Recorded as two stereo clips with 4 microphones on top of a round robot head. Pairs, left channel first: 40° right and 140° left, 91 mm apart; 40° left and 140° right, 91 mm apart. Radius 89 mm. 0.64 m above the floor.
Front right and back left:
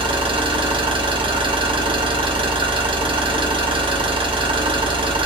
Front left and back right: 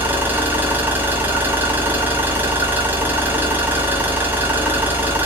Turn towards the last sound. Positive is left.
turn(degrees=155)